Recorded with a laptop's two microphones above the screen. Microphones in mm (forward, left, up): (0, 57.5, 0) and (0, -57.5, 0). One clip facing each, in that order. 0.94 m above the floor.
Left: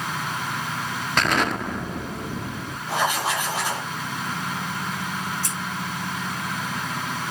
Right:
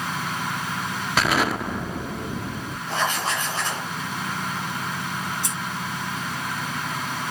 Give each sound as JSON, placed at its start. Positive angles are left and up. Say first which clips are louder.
{"t": 1.2, "sound": "an explosion", "louder": "right 1 dB", "side_deg": -5, "distance_m": 0.8}
{"t": 2.9, "sound": "writing", "louder": "left 2 dB", "side_deg": 10, "distance_m": 5.0}
{"t": 5.4, "sound": "scissors", "louder": "even", "side_deg": -15, "distance_m": 6.0}